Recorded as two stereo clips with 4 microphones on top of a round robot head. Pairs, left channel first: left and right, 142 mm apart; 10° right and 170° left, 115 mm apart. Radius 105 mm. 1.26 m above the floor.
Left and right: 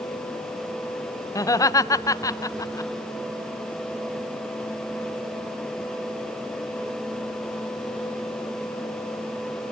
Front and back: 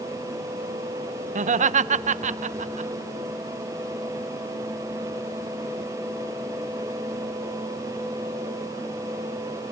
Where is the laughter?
160° left, 0.9 m.